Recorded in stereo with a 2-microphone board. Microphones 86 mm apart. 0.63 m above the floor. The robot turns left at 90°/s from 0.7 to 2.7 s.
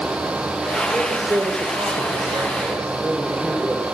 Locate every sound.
0.9 s a man speaking: straight ahead, 2.5 m; by 3.8 s 160° right, 2.5 m